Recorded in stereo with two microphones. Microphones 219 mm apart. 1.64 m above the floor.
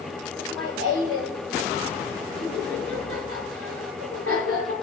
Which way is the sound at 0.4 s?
85° left.